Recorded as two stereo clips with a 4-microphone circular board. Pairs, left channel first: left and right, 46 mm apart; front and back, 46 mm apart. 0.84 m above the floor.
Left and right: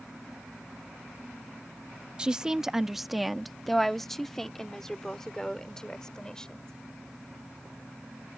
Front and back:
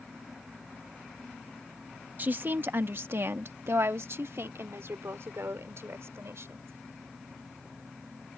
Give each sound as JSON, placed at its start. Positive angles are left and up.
{"t": 2.2, "sound": "a woman speaking", "azimuth_deg": -150}